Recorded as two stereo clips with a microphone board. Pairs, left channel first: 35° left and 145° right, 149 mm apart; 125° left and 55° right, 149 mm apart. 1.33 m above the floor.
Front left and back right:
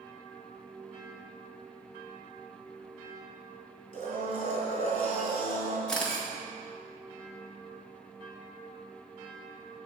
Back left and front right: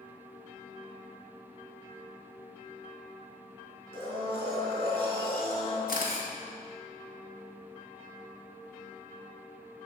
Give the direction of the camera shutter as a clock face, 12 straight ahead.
8 o'clock.